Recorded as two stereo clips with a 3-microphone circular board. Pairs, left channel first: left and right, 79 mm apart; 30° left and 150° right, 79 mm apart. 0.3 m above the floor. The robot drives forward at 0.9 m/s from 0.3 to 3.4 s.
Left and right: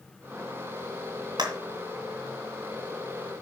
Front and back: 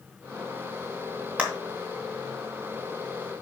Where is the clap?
80° right, 3 m.